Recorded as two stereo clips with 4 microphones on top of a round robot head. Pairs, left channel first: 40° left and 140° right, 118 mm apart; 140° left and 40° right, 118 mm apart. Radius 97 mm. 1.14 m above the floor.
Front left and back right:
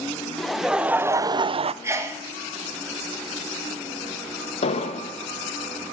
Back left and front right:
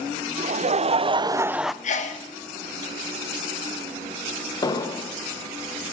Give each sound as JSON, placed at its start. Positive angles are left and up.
{"t": 0.4, "sound": "laughter", "azimuth_deg": -45, "distance_m": 0.8}
{"t": 1.8, "sound": "a sneeze", "azimuth_deg": 155, "distance_m": 1.5}
{"t": 4.6, "sound": "an explosion", "azimuth_deg": 80, "distance_m": 0.9}